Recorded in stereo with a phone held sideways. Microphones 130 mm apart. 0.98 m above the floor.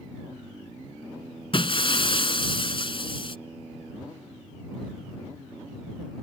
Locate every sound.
1.5 s breaking glass: 45° left (ahead or behind)